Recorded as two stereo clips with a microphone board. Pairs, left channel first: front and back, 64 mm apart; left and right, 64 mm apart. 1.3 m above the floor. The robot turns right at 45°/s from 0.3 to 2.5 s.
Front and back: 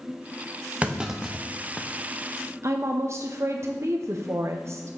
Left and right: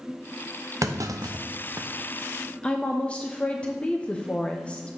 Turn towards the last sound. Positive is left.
turn(degrees=160)